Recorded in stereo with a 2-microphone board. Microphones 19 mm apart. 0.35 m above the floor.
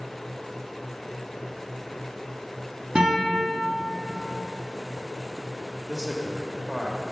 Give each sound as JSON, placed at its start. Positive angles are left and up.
{"t": 3.0, "sound": "a guitar", "side_deg": -75, "distance_m": 2.5}
{"t": 5.9, "sound": "a man speaking", "side_deg": -25, "distance_m": 0.9}